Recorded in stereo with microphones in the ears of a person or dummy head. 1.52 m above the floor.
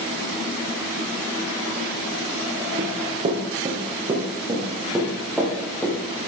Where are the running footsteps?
40° right (ahead or behind), 2.5 m; by 6.0 s centre (ahead or behind), 3.5 m.